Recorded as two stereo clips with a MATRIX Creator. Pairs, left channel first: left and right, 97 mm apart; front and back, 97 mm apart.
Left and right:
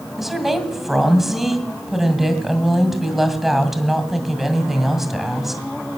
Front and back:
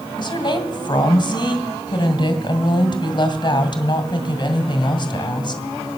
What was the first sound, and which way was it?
A woman speaking, 5° right.